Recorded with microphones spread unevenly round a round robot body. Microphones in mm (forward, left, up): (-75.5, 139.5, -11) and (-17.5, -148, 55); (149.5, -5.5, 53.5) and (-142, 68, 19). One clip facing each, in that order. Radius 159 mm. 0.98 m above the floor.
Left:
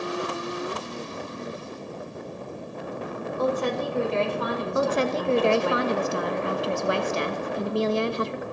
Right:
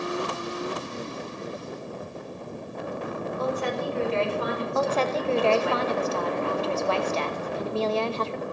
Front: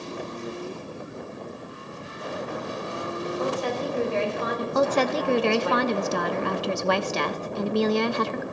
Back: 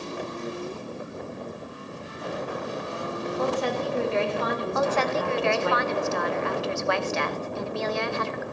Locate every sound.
3.4 s a woman speaking: 140° left, 4.5 m
4.8 s a woman speaking: 35° left, 1.1 m